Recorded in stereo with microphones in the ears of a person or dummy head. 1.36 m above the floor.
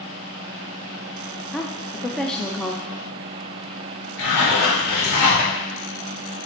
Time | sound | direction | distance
1.5 | a woman speaking | centre (ahead or behind) | 0.6 m
4.2 | a zipper | 75° left (ahead or behind) | 3 m